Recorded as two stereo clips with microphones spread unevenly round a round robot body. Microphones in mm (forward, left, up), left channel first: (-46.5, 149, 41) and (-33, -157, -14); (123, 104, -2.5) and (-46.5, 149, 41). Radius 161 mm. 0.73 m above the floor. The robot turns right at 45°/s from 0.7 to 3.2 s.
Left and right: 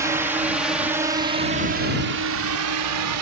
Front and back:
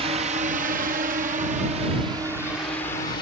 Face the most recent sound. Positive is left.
turn(degrees=-75)